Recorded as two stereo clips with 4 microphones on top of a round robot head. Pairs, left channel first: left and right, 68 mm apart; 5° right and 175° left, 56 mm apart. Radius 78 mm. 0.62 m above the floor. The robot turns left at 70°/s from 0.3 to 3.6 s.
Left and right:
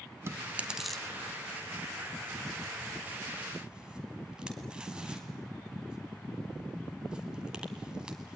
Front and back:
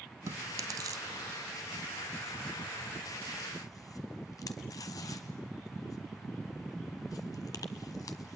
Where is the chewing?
140° right, 1.0 m; by 8.3 s 10° right, 1.0 m.